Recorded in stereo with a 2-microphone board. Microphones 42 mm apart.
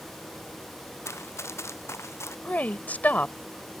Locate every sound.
1.1 s running footsteps: 85° left; by 2.4 s 80° left
2.5 s a woman speaking: 40° left (ahead or behind)